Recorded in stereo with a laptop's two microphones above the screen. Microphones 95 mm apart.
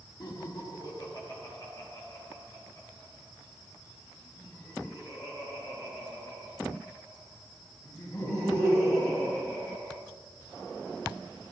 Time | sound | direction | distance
0.2 | laughter | 50° left (ahead or behind) | 1.6 m